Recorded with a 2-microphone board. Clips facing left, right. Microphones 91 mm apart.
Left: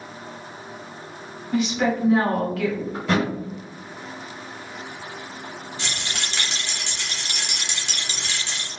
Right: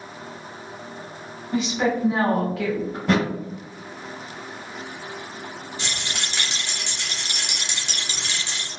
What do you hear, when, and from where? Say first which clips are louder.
1.5 s a woman speaking: left 1 dB; 25° right (ahead or behind), 1.2 m
2.9 s a thud: right 2 dB; 35° right (ahead or behind), 1.8 m
5.8 s a rattle: even; 15° right (ahead or behind), 0.9 m